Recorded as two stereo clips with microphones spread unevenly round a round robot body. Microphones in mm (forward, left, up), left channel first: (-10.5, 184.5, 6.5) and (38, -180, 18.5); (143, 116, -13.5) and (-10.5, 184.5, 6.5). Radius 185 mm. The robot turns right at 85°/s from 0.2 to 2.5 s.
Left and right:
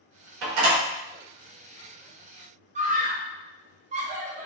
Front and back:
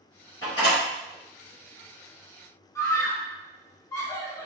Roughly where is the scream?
Ahead right.